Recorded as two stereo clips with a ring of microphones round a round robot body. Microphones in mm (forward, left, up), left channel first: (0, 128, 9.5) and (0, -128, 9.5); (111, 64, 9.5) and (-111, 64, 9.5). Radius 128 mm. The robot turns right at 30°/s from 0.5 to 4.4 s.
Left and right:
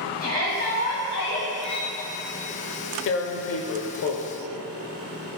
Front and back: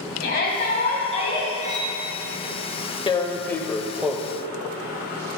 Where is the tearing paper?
65° left, 0.6 m; by 4.2 s 100° left, 0.6 m.